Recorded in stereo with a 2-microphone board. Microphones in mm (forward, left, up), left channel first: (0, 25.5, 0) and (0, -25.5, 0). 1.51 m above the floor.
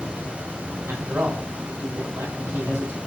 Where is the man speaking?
85° right, 2 m.